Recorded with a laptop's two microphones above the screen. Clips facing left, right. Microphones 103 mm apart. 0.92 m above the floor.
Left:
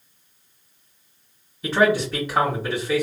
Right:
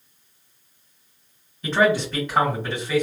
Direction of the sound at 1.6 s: 5° left (ahead or behind).